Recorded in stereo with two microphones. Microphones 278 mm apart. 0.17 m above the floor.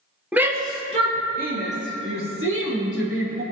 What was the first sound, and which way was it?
A shout, 5° right (ahead or behind).